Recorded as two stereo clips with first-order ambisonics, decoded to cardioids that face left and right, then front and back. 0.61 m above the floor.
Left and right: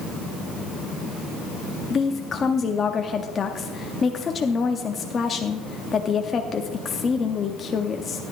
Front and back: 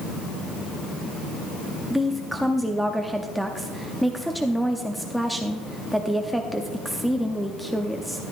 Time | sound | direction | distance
1.9 | a woman speaking | 90° left | 0.6 m